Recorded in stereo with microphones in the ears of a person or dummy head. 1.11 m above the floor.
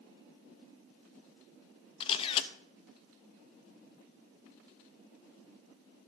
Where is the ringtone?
I don't hear a ringtone.